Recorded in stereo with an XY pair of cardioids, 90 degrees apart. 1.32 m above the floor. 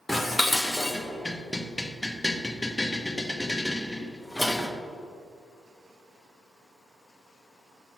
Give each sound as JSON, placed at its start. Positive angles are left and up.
{"t": 0.1, "sound": "dishes clattering", "azimuth_deg": 5, "distance_m": 0.8}